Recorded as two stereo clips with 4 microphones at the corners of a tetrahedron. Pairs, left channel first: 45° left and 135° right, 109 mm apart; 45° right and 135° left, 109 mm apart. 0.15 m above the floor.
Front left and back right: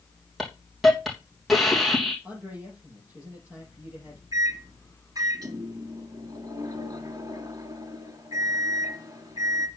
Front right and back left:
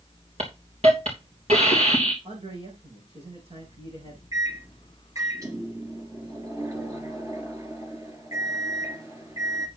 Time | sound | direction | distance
0.4 | a hiss | 135° left | 3 m
2.2 | a man speaking | 150° left | 7 m
4.3 | a microwave | 175° right | 2 m